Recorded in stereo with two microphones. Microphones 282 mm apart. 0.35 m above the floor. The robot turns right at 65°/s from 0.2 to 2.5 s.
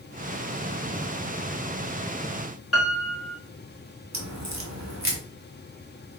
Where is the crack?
70° right (ahead or behind), 1.2 m.